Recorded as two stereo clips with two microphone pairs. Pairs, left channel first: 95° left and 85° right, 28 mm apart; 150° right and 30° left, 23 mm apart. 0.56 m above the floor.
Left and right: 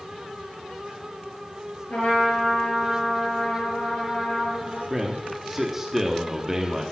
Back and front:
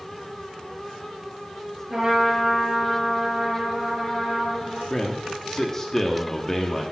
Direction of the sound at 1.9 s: 90° left.